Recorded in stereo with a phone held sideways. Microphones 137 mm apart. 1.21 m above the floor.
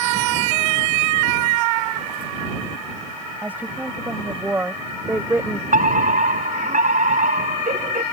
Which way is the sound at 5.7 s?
75° right (ahead or behind).